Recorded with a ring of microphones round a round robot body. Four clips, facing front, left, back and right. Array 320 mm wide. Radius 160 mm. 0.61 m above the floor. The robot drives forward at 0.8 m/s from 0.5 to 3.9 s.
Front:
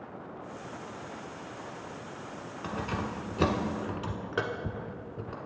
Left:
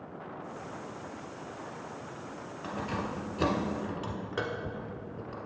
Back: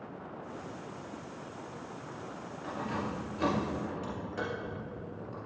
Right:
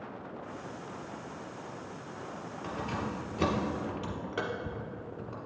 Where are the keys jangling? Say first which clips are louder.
Left 1 dB, front 1 dB; 5° right, 2 m; by 5.4 s 10° right, 1.2 m.